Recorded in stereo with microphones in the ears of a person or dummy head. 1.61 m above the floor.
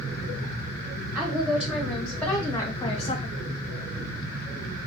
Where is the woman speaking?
10° right (ahead or behind), 1.6 m; by 3.3 s 45° left (ahead or behind), 0.7 m.